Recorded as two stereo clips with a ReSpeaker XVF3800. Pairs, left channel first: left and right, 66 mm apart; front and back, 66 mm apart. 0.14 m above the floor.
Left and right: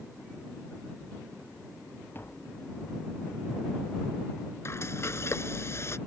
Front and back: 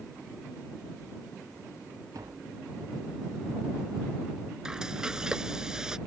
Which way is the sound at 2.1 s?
150° left.